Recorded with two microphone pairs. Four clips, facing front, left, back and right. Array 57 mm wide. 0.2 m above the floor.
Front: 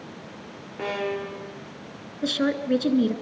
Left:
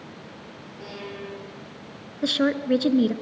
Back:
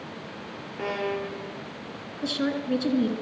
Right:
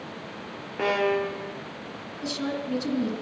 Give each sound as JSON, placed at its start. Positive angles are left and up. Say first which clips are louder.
{"t": 0.8, "sound": "a violin", "louder": "right 14 dB, front 1 dB", "azimuth_deg": -85, "distance_m": 2.0}
{"t": 2.2, "sound": "a woman speaking", "louder": "left 8 dB, front 3 dB", "azimuth_deg": 70, "distance_m": 2.5}